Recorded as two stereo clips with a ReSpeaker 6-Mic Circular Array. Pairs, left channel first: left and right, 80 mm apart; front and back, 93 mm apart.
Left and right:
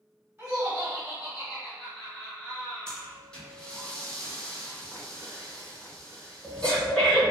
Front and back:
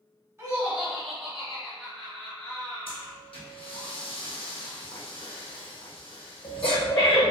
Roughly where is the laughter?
Behind right.